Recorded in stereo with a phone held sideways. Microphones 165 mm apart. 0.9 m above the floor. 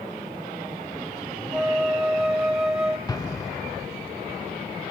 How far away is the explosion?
About 0.6 m.